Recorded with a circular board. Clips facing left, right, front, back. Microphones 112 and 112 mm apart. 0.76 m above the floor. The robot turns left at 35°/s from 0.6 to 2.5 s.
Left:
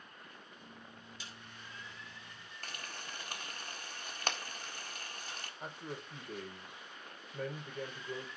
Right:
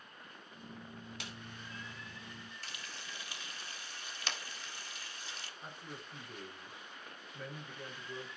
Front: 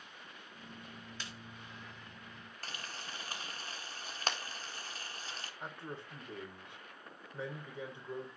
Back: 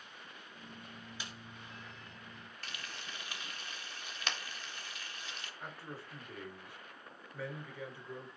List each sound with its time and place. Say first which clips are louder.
1.2 s a snare drum: right 2 dB, back 1 dB; 105° right, 2.5 m; by 1.3 s 110° right, 2.5 m
2.6 s frying: left 2 dB, front 2 dB; 50° left, 1.5 m
5.6 s a man speaking: left 7 dB, front 2 dB; 65° left, 3 m